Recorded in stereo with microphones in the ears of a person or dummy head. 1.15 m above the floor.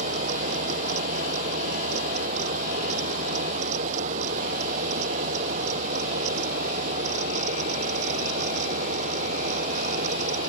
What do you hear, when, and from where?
0.0 s a fan: 45° right (ahead or behind)